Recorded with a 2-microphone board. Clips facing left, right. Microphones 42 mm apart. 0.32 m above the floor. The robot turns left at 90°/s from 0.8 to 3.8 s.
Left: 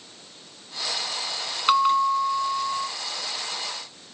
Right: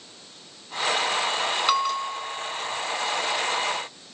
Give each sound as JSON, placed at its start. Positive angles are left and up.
{"t": 1.7, "sound": "a bell", "azimuth_deg": 170, "distance_m": 0.7}